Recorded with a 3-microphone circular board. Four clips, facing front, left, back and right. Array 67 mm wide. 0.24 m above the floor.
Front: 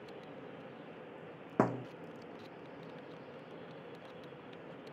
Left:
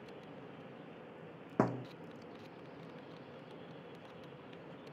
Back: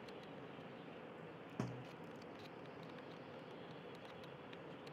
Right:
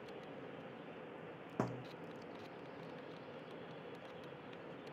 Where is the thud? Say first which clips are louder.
Left 8 dB, front 16 dB; 25° left.